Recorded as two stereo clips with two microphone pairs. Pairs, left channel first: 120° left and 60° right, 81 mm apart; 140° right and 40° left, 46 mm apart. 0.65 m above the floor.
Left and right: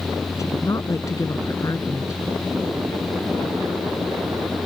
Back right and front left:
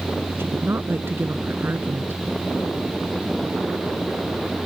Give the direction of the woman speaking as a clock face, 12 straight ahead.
10 o'clock.